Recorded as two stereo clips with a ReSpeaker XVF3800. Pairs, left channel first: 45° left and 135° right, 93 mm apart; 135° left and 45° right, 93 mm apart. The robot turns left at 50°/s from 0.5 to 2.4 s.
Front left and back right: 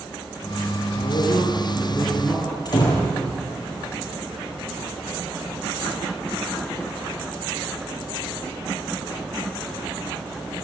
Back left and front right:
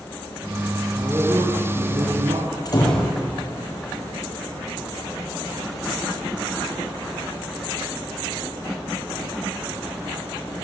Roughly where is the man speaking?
Ahead left.